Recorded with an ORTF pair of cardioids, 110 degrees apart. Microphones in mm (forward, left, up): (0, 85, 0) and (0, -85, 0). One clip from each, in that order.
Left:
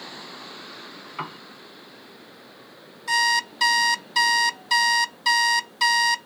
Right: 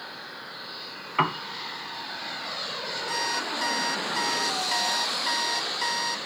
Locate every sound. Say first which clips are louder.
1.2 s a piano: right 10 dB; 50° right
3.1 s an alarm clock: left 9 dB; 50° left